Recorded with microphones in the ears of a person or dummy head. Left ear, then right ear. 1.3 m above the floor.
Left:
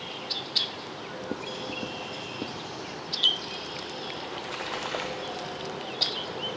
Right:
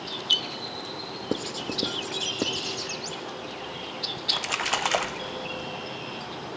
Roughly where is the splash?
Right.